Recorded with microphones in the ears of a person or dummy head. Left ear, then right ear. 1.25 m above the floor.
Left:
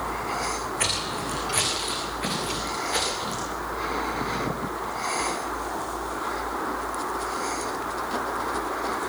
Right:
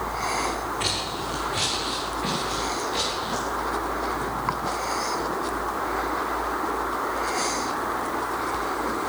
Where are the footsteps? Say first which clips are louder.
Even; 35° left (ahead or behind), 6 m; by 3.4 s 45° left (ahead or behind), 9.5 m.